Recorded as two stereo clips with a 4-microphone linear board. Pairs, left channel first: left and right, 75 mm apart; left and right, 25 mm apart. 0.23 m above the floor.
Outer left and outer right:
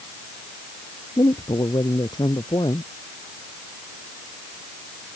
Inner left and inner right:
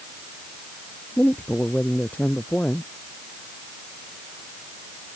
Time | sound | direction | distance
1.2 | a man speaking | 75° left (ahead or behind) | ?